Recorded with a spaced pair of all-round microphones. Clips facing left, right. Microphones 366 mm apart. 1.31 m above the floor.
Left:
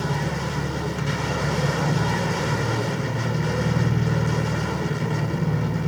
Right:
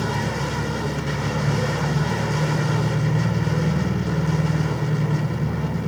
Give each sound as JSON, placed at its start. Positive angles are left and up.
{"t": 0.0, "sound": "an engine running", "side_deg": -15, "distance_m": 4.5}